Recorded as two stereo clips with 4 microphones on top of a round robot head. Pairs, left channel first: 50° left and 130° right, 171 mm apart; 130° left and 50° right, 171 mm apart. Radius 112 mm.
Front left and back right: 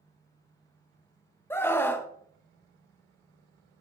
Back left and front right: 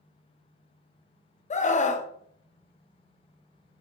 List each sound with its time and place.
1.5 s a scream: 120° left, 0.9 m